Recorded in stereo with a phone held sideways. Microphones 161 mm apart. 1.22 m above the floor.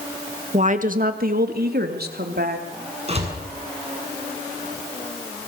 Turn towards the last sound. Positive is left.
turn(degrees=-40)  # may be behind; listen again after turning